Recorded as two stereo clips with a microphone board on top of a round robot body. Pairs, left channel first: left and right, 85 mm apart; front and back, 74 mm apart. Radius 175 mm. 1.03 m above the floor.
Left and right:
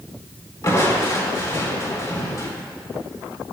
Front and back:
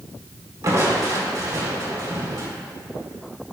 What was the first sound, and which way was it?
Crushing, 140° left.